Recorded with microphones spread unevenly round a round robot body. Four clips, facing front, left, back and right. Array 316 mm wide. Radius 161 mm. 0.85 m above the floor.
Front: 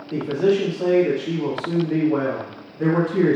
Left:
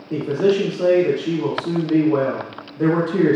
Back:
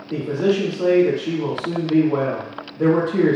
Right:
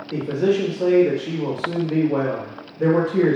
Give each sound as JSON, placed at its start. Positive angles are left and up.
{"t": 0.1, "sound": "a man speaking", "azimuth_deg": 110, "distance_m": 2.0}